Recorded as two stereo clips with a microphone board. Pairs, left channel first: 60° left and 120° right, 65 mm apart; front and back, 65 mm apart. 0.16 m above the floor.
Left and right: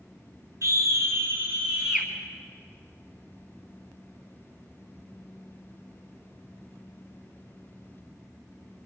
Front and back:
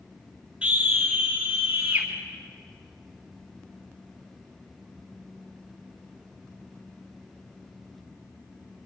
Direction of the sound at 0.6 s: 110° right.